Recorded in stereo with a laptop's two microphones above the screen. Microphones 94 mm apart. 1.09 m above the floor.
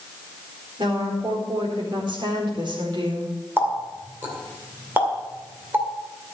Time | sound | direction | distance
0.8 | a woman speaking | 60° right (ahead or behind) | 4 m
3.6 | a running tap | 25° right (ahead or behind) | 2 m